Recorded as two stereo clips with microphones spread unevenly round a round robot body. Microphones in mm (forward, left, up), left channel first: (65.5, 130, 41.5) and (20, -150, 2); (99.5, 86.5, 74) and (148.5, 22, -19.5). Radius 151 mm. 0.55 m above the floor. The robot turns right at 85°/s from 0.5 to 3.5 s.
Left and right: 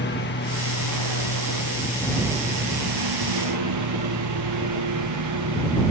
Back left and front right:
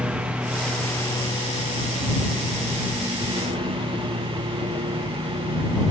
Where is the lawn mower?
30° left; by 5.9 s 75° right.